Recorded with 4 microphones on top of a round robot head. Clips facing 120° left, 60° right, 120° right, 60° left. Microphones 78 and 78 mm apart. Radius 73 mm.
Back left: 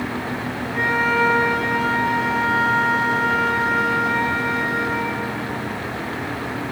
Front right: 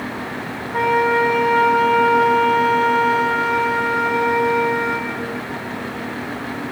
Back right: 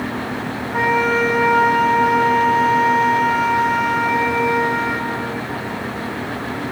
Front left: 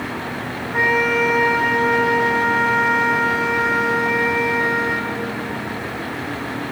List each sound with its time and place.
0.7 s a flute: 25° right, 5 m